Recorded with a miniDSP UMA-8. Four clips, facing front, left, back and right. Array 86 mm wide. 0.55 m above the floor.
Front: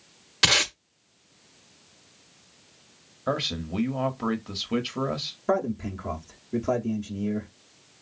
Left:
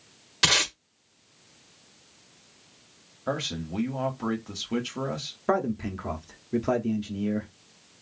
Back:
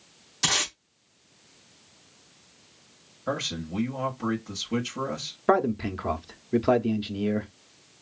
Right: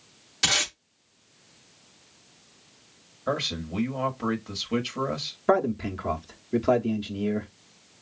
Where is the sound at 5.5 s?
165° right, 0.7 m.